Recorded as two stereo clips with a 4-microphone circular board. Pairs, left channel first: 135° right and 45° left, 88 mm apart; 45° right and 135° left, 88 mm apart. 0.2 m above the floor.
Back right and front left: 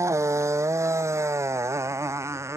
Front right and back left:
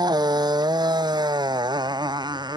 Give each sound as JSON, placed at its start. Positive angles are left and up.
{"t": 0.0, "sound": "a motorcycle", "azimuth_deg": 100}